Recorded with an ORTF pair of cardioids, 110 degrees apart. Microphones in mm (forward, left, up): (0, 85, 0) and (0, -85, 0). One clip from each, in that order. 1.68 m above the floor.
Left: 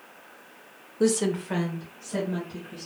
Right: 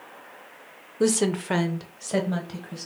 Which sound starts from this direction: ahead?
A woman speaking, at 1.0 s.